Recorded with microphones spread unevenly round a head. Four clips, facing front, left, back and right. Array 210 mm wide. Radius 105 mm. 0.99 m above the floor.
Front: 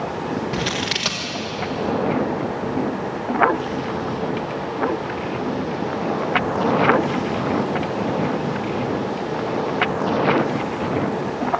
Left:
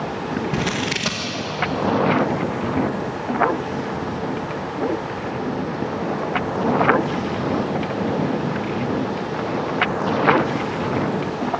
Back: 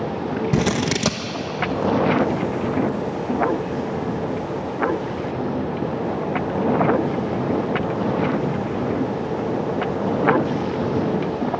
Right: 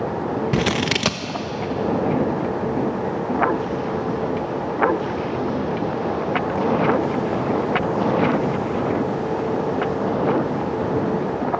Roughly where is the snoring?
I don't hear snoring.